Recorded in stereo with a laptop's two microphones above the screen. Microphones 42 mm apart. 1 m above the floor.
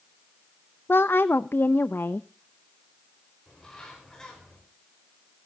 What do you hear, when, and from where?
0.9 s a woman speaking: 65° left (ahead or behind), 0.6 m
3.5 s a bird: 15° left (ahead or behind), 5 m